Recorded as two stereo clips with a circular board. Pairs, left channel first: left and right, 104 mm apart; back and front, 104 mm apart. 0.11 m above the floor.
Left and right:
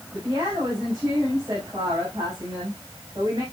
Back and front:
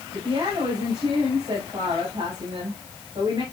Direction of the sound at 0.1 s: 35° right.